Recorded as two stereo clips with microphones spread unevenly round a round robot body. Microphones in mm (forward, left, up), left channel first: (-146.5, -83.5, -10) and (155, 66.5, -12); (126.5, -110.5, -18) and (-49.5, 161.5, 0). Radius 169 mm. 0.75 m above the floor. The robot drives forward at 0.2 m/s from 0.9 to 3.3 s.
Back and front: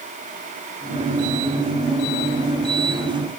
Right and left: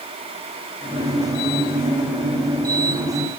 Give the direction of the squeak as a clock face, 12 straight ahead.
I don't hear a squeak.